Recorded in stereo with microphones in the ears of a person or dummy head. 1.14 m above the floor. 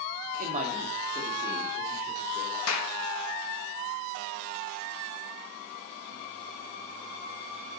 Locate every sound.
0.4 s a man speaking: 50° right (ahead or behind), 1.2 m; by 2.6 s 10° right (ahead or behind), 3.5 m
2.7 s a clap: 80° left, 1.3 m